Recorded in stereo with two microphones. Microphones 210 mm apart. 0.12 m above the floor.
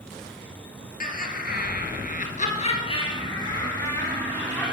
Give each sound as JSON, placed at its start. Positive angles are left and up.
{"t": 1.0, "sound": "laughter", "side_deg": 45, "distance_m": 2.5}